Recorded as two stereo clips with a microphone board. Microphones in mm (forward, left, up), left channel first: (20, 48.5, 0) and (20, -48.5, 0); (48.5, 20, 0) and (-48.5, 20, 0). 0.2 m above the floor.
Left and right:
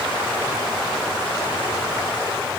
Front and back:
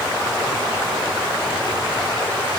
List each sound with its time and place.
Only background noise.